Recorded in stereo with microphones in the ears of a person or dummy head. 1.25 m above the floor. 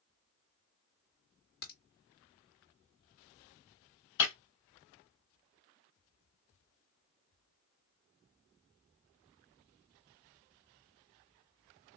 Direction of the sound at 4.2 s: 60° left (ahead or behind).